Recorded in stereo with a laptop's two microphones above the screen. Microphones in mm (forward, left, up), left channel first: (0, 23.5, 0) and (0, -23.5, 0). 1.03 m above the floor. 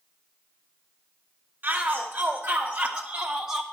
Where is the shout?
40° right (ahead or behind), 2.5 m; by 3.6 s 5° right (ahead or behind), 1.1 m.